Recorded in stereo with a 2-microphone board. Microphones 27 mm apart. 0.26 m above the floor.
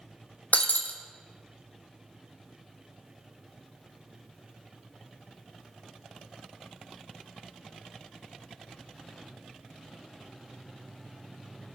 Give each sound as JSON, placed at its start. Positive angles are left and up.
{"t": 0.5, "sound": "breaking glass", "side_deg": 70, "distance_m": 1.8}